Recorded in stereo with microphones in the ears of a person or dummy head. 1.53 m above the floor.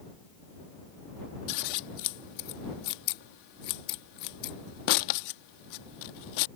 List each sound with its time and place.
1.5 s scissors: 55° left (ahead or behind)